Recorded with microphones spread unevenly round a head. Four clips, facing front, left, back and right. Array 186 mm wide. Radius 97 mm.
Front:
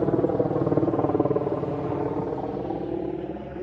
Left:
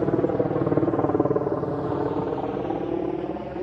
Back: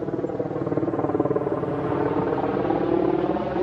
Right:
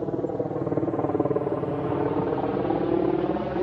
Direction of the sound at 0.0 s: 75° left.